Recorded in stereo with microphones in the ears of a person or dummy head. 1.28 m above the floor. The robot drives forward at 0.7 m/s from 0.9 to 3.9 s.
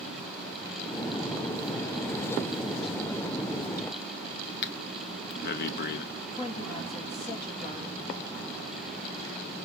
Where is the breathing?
55° left (ahead or behind), 0.5 m.